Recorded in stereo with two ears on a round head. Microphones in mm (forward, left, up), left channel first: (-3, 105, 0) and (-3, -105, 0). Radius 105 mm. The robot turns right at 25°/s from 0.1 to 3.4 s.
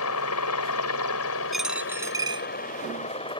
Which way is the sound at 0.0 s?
75° left.